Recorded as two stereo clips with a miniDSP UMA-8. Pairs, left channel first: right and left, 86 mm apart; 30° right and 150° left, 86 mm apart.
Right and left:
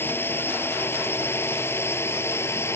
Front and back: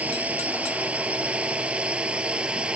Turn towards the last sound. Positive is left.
turn(degrees=-135)